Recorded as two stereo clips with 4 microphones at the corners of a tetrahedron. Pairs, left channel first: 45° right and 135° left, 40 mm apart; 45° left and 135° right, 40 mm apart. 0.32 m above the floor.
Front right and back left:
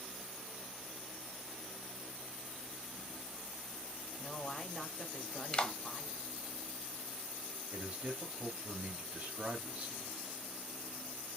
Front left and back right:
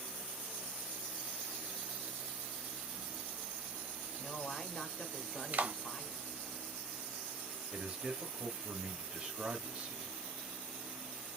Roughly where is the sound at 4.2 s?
Ahead.